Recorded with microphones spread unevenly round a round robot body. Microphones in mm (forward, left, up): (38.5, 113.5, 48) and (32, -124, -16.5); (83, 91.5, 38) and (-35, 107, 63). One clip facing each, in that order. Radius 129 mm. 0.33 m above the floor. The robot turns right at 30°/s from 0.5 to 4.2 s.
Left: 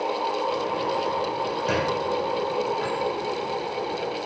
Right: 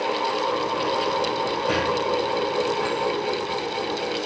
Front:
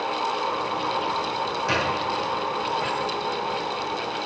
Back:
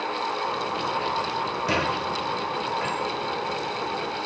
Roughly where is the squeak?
Behind left.